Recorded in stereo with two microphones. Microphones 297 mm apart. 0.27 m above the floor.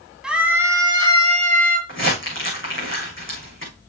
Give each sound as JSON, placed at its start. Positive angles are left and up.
{"t": 0.2, "sound": "a scream", "side_deg": -5, "distance_m": 1.7}
{"t": 1.9, "sound": "crumpling", "side_deg": 45, "distance_m": 6.0}